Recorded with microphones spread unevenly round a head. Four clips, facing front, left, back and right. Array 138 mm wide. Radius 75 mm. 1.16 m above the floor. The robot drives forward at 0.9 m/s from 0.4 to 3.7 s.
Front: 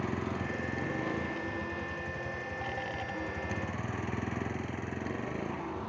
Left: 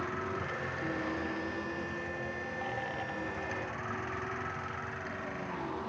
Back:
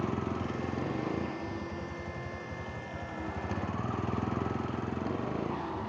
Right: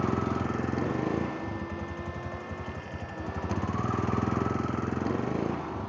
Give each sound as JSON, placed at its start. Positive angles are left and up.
{"t": 0.0, "sound": "a vehicle", "azimuth_deg": -95}